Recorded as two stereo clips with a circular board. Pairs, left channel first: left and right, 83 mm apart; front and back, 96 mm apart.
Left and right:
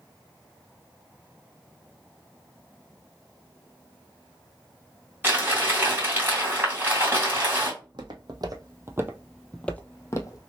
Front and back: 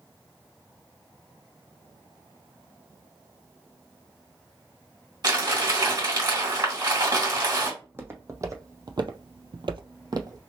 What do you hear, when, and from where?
5.2 s crumpling: 150° right, 2.5 m
7.8 s footsteps: 110° right, 1.0 m; by 10.4 s 130° left, 0.8 m